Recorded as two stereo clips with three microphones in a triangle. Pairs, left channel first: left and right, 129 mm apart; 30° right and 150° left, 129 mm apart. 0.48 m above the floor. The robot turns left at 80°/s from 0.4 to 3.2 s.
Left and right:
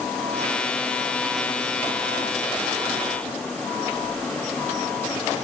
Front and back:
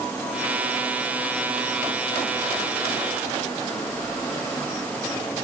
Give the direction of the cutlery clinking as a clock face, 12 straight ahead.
I don't hear cutlery clinking.